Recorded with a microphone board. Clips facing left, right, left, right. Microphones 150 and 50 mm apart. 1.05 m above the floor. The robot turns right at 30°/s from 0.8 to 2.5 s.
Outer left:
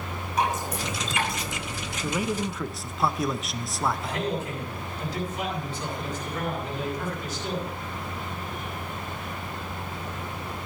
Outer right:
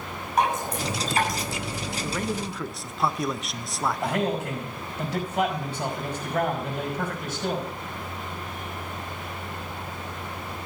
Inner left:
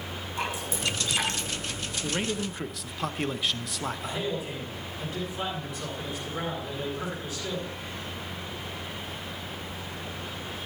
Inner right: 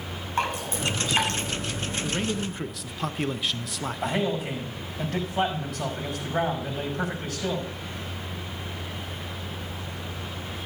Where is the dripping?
55° right (ahead or behind), 5.5 m; by 1.5 s 35° right (ahead or behind), 5.5 m.